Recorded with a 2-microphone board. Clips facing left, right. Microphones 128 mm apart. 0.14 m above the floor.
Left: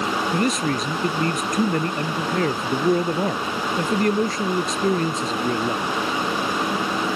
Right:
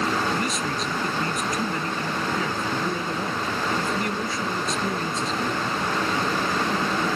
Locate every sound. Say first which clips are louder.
0.3 s a man speaking: left 5 dB; 50° left (ahead or behind)